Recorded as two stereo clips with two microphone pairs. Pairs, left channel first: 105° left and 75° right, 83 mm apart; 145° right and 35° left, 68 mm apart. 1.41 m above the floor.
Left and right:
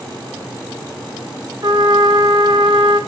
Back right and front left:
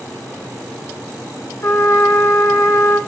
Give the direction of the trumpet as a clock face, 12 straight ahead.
3 o'clock.